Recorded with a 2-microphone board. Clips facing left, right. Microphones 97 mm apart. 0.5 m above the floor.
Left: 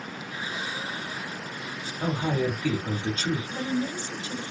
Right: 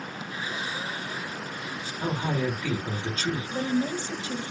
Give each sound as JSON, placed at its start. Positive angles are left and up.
{"t": 2.0, "sound": "a man speaking", "side_deg": 10, "distance_m": 1.0}
{"t": 3.5, "sound": "a woman speaking", "side_deg": -50, "distance_m": 1.4}